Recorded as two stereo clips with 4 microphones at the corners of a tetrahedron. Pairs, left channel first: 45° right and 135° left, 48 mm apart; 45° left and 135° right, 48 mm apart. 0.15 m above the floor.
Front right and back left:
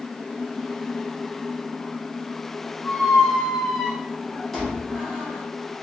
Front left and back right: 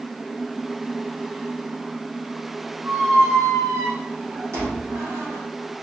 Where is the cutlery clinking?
I don't hear cutlery clinking.